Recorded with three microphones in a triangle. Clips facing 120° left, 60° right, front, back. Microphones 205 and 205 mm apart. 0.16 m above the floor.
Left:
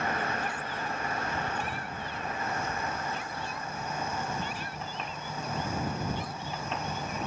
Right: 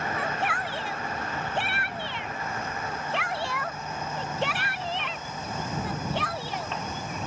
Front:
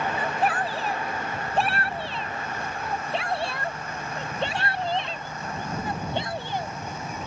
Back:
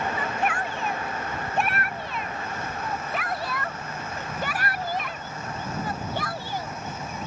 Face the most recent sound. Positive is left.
turn(degrees=-70)